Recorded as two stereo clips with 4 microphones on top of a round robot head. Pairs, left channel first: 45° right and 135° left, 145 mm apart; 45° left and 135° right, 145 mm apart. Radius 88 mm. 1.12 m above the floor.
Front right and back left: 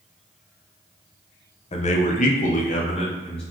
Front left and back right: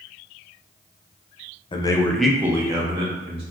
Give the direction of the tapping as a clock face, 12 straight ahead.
I don't hear tapping.